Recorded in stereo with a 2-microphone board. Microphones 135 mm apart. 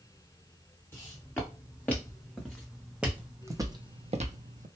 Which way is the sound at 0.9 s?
15° left (ahead or behind).